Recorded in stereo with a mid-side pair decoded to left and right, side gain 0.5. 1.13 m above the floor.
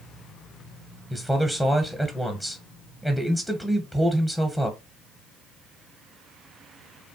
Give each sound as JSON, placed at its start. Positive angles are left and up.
{"t": 1.1, "sound": "a man speaking", "azimuth_deg": 0, "distance_m": 0.7}